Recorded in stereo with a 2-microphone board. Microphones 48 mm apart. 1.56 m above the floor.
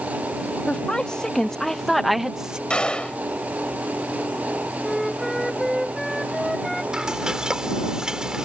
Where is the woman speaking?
20° left (ahead or behind); by 2.6 s 20° right (ahead or behind).